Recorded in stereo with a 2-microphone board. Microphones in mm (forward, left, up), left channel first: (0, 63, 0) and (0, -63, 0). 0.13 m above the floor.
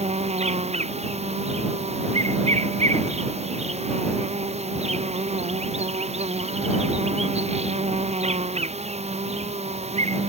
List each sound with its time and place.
0.0 s an insect: 60° right (ahead or behind)